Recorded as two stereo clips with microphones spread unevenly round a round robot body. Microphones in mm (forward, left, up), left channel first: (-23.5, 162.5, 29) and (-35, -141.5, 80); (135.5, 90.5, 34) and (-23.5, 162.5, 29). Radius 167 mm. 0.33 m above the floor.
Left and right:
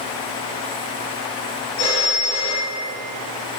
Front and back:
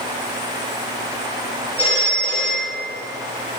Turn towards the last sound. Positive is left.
turn(degrees=30)